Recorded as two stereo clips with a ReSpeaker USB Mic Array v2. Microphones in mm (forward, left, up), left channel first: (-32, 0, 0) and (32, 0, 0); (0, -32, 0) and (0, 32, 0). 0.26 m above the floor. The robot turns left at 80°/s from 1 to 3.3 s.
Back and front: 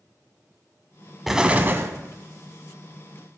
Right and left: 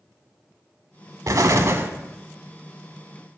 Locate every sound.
1.3 s an explosion: 90° left, 0.7 m; by 1.9 s 35° left, 0.7 m